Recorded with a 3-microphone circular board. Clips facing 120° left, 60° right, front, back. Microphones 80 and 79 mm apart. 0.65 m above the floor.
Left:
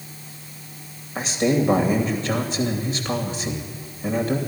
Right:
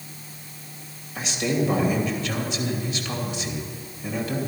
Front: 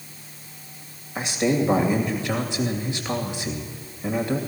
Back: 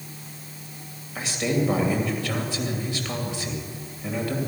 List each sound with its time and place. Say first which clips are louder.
1.1 s a man speaking: left 4 dB, front 3 dB; 70° left, 2.5 m